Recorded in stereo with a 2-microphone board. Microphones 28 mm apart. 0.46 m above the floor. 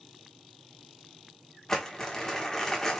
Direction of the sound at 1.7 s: 20° left (ahead or behind).